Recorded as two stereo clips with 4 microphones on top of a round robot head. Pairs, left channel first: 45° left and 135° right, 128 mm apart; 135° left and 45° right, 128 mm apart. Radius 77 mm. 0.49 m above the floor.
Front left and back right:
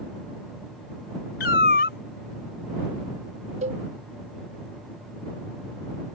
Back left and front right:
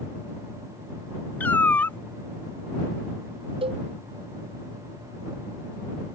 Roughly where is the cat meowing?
Ahead left.